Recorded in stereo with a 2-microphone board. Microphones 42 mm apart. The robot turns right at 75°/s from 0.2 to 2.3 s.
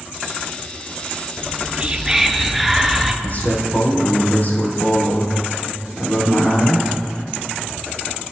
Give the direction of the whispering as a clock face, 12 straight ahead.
2 o'clock.